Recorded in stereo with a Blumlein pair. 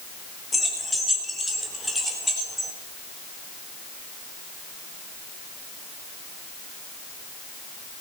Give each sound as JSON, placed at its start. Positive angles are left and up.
{"t": 0.5, "sound": "keys jangling", "azimuth_deg": 10, "distance_m": 2.5}